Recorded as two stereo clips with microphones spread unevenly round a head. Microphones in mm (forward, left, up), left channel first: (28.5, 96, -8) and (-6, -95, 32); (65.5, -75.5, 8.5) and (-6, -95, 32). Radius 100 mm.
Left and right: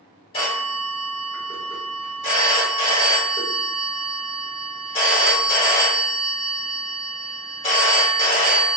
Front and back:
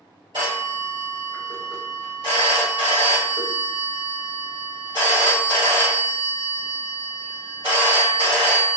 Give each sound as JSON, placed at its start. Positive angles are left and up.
{"t": 0.3, "sound": "a phone ringing", "azimuth_deg": 145, "distance_m": 1.4}